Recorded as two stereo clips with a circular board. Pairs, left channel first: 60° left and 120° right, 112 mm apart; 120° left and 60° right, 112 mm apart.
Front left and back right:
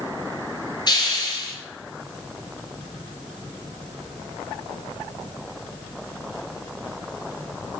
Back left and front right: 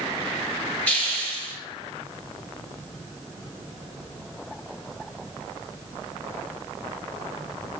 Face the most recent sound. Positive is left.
turn(degrees=45)